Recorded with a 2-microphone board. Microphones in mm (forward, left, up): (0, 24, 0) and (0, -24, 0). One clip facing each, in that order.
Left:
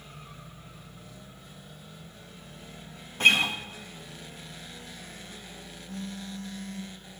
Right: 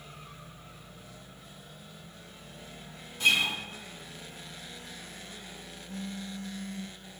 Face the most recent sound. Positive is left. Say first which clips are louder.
# left 1 dB
turn(degrees=-40)  # may be behind; listen again after turning